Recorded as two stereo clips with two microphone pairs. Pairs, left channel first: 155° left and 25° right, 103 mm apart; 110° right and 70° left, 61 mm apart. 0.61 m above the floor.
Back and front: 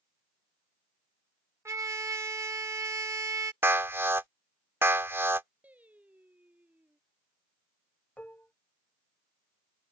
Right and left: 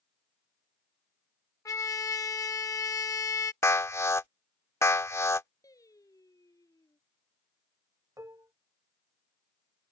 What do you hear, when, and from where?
1.6 s a trumpet: 85° right
3.6 s an alarm: 85° right
5.6 s singing: 100° right
8.2 s dishes clattering: 80° left